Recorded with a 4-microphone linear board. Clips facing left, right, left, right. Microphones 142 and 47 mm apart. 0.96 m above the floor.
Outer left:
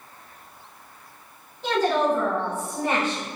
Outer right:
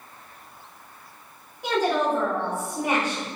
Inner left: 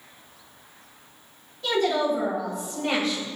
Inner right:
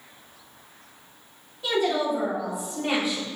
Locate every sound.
1.6 s a woman speaking: 15° right (ahead or behind), 2.5 m